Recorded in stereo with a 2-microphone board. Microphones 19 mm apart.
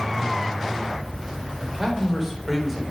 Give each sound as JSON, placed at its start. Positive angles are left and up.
{"t": 1.6, "sound": "a man speaking", "side_deg": -10, "distance_m": 3.5}